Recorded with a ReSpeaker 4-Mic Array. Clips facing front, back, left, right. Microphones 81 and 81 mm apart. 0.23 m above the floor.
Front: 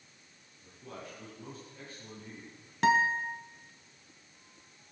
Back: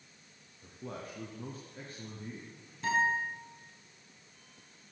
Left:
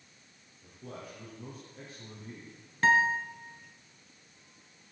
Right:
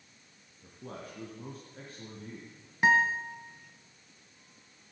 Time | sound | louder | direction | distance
0.6 | a man speaking | back 3 dB, right 1 dB | 135° right | 3 m
2.8 | a guitar | front 4 dB, even | 15° right | 1.7 m